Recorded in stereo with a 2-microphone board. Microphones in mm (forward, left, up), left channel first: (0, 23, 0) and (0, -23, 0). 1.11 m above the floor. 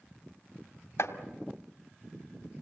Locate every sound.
1.0 s chopping: 85° left, 2 m